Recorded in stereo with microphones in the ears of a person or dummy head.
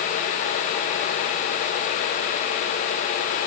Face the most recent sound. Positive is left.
No sound to turn to.